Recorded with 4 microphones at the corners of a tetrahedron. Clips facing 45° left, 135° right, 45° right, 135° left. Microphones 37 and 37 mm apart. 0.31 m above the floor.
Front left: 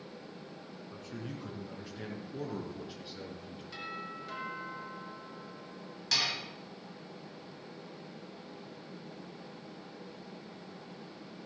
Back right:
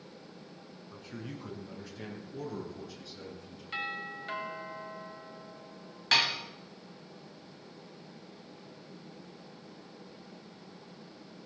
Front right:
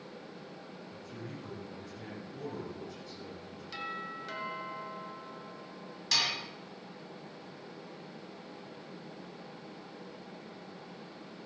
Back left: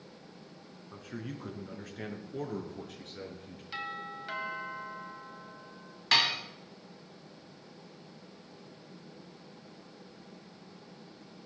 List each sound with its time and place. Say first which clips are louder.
0.9 s a man speaking: even, back left 5 dB; 140° left, 3.5 m; by 3.6 s 105° left, 4.5 m
3.7 s a doorbell: back right 6 dB, back left 1 dB; 155° right, 2.5 m
6.1 s dishes clattering: back right 5 dB, back left 5 dB; straight behind, 1.4 m